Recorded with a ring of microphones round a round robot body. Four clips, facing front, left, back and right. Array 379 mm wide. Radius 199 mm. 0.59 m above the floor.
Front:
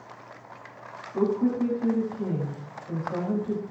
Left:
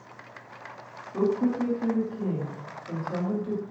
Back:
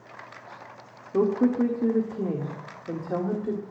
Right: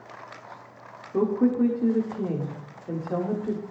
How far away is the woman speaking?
About 1.8 m.